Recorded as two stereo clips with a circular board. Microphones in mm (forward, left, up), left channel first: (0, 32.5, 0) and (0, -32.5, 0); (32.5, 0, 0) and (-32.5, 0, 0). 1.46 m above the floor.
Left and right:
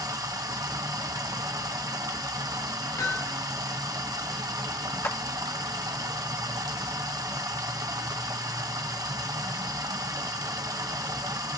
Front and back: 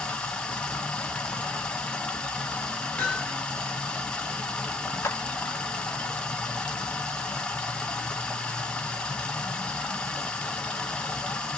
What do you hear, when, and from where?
0.0 s running water: 75° right, 1.0 m
3.0 s hammering: 75° left, 3 m
5.0 s a clap: 40° left, 0.8 m